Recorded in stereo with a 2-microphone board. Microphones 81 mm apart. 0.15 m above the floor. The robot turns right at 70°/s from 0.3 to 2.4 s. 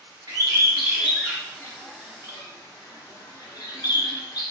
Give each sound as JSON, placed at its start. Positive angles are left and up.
{"t": 0.3, "sound": "a bird", "side_deg": -50, "distance_m": 1.1}